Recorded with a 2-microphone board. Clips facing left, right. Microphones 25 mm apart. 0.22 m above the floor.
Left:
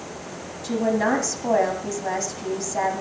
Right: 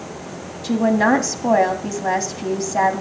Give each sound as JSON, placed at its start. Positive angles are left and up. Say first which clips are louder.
{"t": 0.6, "sound": "a woman speaking", "louder": "right 5 dB", "side_deg": -30, "distance_m": 1.3}